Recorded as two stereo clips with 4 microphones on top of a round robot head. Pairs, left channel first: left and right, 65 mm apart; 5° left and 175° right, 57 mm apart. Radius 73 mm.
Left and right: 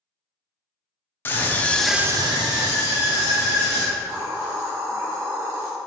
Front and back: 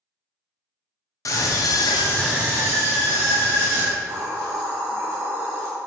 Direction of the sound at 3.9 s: 150° right.